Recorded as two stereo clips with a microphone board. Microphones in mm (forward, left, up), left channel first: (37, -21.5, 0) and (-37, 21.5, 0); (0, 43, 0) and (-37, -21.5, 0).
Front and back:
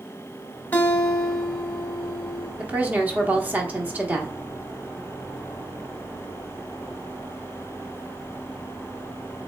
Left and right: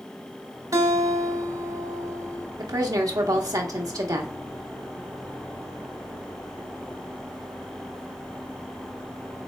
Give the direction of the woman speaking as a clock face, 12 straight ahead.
5 o'clock.